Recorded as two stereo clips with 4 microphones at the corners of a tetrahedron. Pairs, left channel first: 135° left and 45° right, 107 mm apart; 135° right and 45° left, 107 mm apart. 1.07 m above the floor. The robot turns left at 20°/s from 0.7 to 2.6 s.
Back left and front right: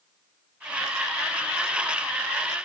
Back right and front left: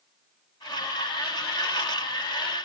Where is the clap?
No clap in this recording.